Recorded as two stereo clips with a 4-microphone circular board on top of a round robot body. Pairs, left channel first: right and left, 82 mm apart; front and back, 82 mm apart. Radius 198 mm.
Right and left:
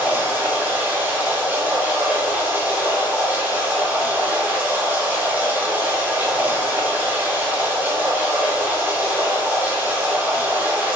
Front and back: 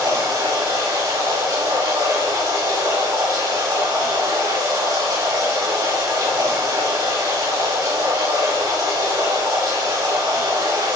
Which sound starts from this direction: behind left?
Running water, at 0.0 s.